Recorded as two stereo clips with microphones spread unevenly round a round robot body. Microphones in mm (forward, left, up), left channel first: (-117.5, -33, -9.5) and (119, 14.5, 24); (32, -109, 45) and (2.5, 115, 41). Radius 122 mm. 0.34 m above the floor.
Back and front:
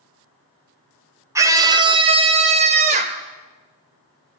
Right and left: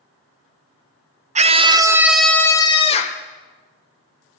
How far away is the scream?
About 1.4 m.